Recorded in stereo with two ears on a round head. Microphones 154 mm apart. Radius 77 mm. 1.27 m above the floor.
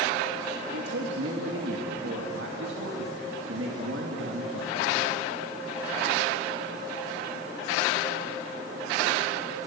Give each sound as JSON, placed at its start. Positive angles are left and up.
{"t": 0.7, "sound": "a man speaking", "side_deg": -80, "distance_m": 2.5}